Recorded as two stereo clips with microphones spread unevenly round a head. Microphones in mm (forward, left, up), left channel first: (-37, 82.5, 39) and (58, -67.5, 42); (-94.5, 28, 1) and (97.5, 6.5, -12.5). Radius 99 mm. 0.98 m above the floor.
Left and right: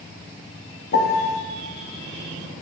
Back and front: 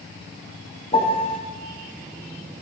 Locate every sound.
0.9 s a piano: 110° left, 0.9 m